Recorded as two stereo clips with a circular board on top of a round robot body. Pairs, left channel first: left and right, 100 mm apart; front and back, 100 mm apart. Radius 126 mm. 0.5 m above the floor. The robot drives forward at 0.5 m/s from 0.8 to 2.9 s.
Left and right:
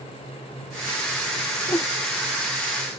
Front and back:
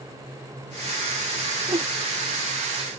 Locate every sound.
1.7 s a whoosh: 150° left